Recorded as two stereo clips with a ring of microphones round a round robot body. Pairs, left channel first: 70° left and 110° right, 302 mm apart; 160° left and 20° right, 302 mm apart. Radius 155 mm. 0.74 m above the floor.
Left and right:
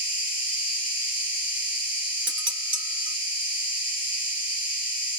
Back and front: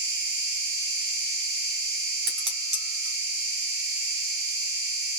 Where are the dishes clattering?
60° right, 1.4 m.